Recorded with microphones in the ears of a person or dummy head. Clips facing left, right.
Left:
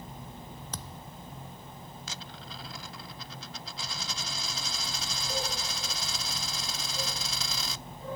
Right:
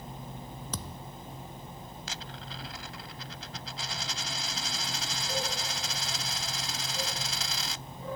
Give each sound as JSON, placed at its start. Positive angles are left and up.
{"t": 0.7, "sound": "a thud", "side_deg": -80}
{"t": 2.1, "sound": "a dropped coin", "side_deg": 80}